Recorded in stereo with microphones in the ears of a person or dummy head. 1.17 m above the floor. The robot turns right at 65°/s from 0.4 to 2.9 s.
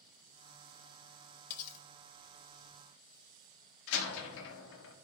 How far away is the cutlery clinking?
About 0.6 m.